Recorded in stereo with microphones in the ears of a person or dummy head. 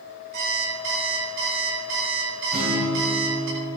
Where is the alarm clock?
50° right (ahead or behind), 3.5 m.